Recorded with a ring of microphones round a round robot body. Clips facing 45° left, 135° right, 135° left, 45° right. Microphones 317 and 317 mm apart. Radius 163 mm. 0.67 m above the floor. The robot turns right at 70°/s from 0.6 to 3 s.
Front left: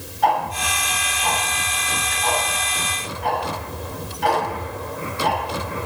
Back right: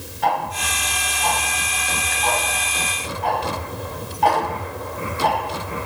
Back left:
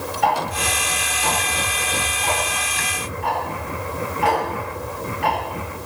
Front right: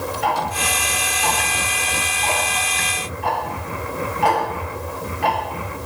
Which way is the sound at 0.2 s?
160° left.